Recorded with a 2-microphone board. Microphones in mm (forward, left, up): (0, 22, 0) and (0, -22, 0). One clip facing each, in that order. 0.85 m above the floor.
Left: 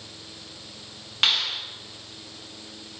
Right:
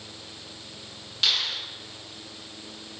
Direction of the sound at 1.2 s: 50° left (ahead or behind).